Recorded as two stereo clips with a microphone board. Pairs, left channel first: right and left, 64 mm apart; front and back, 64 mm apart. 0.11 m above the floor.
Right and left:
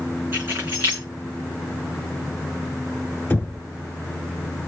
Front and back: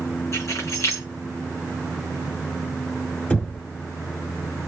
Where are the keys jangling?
40° left, 6.5 m.